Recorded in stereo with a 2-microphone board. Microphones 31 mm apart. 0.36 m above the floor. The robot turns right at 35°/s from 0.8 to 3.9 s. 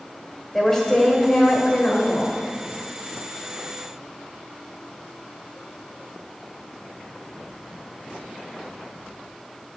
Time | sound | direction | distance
0.5 | a woman speaking | 15° left | 1.5 m